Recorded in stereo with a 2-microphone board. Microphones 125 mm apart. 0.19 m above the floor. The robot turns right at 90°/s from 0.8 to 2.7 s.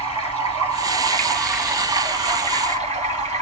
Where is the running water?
115° left, 4 m; by 3.4 s 75° right, 4 m.